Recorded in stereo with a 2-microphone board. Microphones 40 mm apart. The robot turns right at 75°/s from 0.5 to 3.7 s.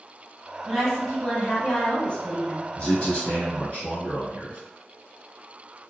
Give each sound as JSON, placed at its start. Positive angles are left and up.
{"t": 0.7, "sound": "a woman speaking", "side_deg": -10, "distance_m": 1.3}
{"t": 2.8, "sound": "a man speaking", "azimuth_deg": 50, "distance_m": 1.7}